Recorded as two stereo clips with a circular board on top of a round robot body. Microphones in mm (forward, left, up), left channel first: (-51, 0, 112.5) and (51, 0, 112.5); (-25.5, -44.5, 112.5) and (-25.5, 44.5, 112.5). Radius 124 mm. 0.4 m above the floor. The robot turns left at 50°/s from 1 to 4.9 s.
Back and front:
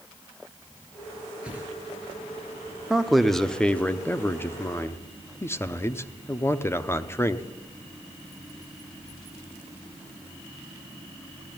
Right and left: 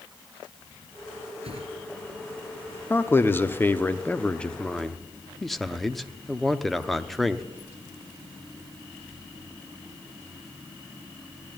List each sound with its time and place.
1.4 s a whoosh: 80° left, 4.5 m; by 1.7 s 65° left, 4.5 m
2.9 s a man speaking: 75° right, 0.9 m; by 7.5 s 175° right, 0.9 m